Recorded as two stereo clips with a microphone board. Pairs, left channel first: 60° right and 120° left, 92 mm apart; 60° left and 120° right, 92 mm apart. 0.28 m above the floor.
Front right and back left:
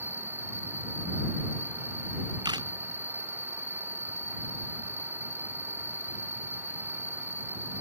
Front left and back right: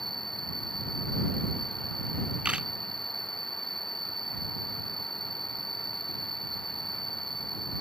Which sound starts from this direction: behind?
A camera shutter, at 2.5 s.